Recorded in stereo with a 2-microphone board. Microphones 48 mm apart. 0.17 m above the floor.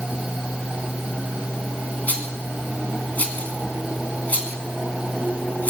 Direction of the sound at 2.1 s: 35° left (ahead or behind).